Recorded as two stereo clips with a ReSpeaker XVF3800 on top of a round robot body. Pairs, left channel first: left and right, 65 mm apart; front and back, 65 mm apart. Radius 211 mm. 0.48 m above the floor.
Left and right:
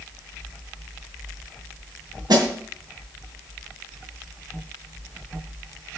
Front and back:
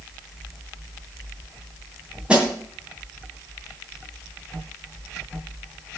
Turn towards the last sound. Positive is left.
turn(degrees=-105)